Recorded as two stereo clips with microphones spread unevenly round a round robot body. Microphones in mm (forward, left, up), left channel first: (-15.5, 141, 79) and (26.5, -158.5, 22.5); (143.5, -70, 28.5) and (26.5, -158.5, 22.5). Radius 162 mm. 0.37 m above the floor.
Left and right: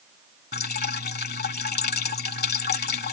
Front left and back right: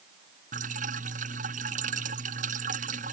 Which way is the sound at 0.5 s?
160° left.